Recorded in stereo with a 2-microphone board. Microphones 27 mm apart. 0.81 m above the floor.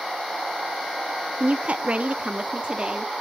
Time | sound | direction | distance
1.4 | a woman speaking | 55° right (ahead or behind) | 0.8 m